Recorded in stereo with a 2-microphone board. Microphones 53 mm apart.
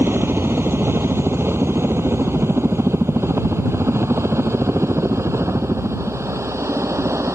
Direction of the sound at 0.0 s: 50° right (ahead or behind).